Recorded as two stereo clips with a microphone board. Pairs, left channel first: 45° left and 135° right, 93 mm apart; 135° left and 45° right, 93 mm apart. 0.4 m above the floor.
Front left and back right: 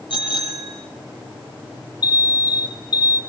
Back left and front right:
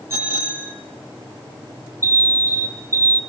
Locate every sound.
0.1 s a bicycle bell: 15° left, 9 m
2.0 s an alarm: 15° left, 2.5 m